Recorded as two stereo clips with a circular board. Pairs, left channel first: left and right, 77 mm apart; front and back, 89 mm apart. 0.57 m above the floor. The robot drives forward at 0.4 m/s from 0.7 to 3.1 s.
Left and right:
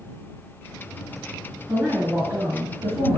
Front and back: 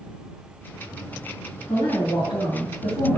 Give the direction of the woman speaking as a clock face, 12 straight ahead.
1 o'clock.